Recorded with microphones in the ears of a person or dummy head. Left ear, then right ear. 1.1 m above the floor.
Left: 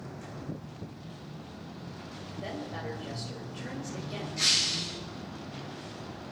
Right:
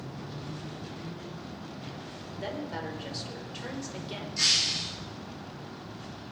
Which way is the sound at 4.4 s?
30° right (ahead or behind).